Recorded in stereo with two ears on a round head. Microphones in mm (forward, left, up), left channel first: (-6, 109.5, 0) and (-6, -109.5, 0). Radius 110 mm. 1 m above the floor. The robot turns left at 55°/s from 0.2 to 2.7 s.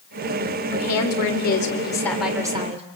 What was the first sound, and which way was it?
A woman speaking, 85° left.